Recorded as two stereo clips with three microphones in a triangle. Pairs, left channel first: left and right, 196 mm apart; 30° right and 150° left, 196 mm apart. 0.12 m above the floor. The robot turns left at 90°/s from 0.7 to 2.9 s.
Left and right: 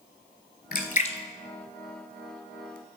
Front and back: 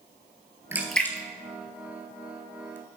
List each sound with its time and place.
0.7 s a splash: 75° left, 0.7 m; by 2.8 s 105° right, 0.7 m